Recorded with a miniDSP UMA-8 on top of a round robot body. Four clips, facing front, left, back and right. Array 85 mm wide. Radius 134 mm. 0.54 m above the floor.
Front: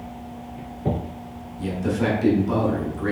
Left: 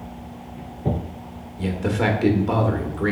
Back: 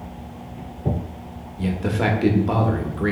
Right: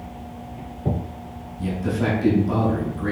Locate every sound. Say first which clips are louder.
1.6 s a man speaking: left 1 dB, back 1 dB; 140° left, 1.2 m